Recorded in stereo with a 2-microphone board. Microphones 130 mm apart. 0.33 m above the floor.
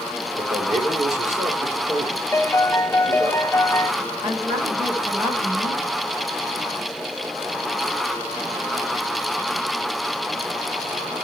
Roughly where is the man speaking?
Right.